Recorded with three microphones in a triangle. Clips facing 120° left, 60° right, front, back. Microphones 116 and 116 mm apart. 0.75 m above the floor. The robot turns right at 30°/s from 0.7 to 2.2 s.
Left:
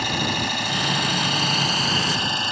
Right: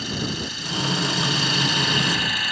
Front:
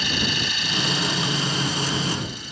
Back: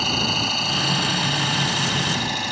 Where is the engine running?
135° left; by 2.5 s straight behind.